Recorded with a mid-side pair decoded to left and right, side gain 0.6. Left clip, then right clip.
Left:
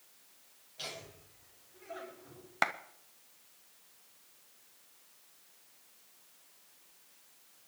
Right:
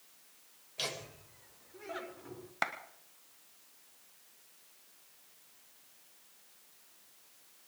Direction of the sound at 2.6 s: 25° left.